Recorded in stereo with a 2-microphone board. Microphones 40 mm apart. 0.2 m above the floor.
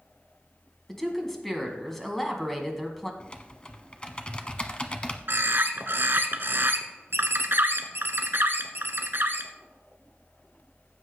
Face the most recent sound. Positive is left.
turn(degrees=-60)  # may be behind; listen again after turning